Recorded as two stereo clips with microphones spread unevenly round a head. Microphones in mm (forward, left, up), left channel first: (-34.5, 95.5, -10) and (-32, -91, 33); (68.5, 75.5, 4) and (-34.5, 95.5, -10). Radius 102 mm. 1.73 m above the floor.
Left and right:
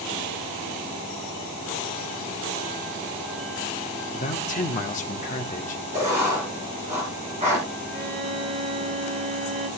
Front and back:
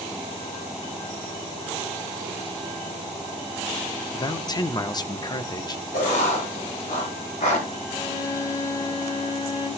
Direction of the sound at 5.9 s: 30° right.